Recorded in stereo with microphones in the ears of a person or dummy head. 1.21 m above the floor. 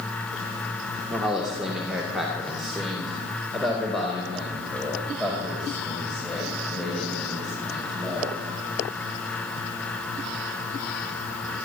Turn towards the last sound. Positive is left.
turn(degrees=5)  # may be behind; listen again after turning